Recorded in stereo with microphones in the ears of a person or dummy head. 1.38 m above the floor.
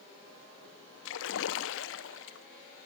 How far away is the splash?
About 0.8 m.